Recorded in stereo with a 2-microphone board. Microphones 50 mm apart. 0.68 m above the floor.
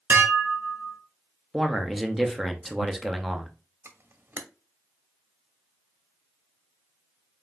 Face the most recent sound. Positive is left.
turn(degrees=-55)  # may be behind; listen again after turning